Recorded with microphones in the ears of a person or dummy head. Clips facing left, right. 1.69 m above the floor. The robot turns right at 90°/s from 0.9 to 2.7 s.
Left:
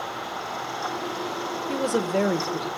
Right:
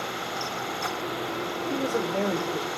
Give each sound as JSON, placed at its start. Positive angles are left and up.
{"t": 1.7, "sound": "a woman speaking", "azimuth_deg": 105, "distance_m": 0.6}